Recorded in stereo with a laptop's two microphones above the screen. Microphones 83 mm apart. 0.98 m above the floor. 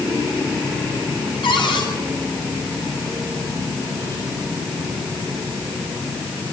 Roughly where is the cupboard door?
Left.